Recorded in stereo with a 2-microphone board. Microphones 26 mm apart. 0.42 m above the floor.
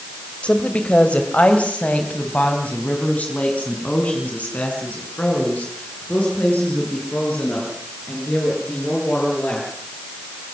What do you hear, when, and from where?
0.4 s a woman speaking: 50° left (ahead or behind), 2 m; by 9.7 s 75° left (ahead or behind), 10 m